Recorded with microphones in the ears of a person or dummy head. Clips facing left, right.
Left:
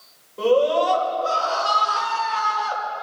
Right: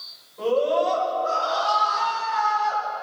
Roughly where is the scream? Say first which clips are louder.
Left 3 dB; left.